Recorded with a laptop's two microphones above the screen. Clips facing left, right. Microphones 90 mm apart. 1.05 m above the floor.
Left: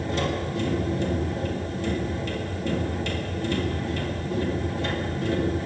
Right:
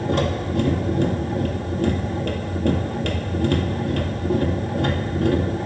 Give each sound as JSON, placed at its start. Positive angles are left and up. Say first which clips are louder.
{"t": 0.0, "sound": "a machine running", "louder": "right 4 dB", "side_deg": -60, "distance_m": 2.5}